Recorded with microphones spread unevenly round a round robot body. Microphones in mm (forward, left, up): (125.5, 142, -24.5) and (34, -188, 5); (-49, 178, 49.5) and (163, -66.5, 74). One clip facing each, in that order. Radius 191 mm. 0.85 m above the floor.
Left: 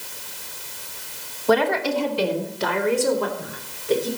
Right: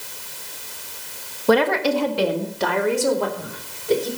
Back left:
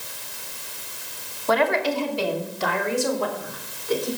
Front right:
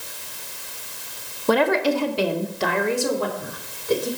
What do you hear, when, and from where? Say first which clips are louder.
1.5 s a woman speaking: right 2 dB, front right 4 dB; 100° right, 1.3 m; by 4.1 s 60° right, 4 m